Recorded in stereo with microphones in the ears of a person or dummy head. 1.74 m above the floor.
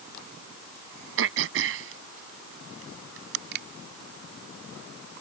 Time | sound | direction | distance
1.2 | throat clearing | 70° right (ahead or behind) | ?
3.5 | a finger snap | 60° right (ahead or behind) | ?